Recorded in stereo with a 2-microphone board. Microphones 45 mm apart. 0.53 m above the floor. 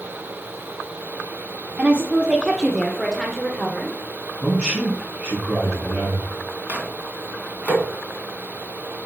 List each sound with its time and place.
1.8 s a woman speaking: 30° right (ahead or behind), 1.2 m; by 4.0 s 10° left (ahead or behind), 1.9 m
4.4 s a man speaking: 15° right (ahead or behind), 5 m
6.7 s a microwave: 30° right (ahead or behind), 3.5 m